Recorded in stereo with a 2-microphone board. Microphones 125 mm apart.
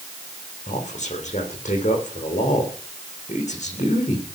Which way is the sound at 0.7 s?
70° left (ahead or behind).